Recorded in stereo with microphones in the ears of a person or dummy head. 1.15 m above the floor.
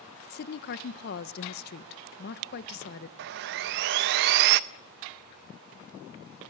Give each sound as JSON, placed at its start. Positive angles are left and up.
{"t": 0.3, "sound": "a woman speaking", "side_deg": 55, "distance_m": 1.2}
{"t": 3.2, "sound": "sawing", "side_deg": -60, "distance_m": 0.6}